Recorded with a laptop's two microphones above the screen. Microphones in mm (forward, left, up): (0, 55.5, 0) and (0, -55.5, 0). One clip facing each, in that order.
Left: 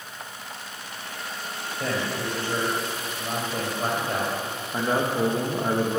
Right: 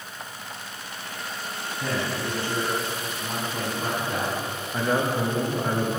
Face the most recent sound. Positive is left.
turn(degrees=20)  # may be behind; listen again after turning